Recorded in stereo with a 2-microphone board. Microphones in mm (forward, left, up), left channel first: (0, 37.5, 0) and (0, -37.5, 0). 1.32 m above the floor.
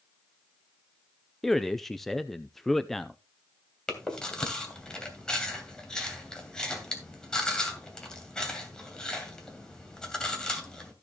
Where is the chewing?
10° left (ahead or behind), 2.5 m.